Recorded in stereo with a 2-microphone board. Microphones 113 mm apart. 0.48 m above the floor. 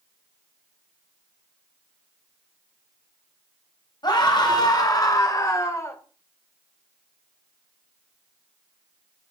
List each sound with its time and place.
4.0 s a scream: 45° left (ahead or behind), 3.5 m; by 6.0 s 25° left (ahead or behind), 2.0 m